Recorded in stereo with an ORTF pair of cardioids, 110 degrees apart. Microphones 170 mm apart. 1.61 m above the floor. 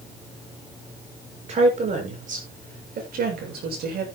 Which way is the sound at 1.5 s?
40° right.